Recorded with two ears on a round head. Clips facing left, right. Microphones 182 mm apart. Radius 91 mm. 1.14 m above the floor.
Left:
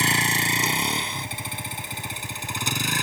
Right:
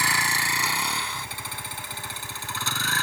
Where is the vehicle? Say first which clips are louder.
Left 5 dB; 20° left (ahead or behind); by 3.0 s 15° left (ahead or behind).